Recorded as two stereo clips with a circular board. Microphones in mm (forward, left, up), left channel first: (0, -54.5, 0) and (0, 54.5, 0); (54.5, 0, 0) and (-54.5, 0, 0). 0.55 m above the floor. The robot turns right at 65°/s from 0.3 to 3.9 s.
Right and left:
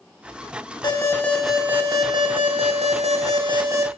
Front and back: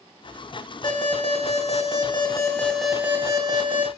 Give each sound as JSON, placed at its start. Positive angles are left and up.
{"t": 0.8, "sound": "an alarm", "azimuth_deg": -40, "distance_m": 2.5}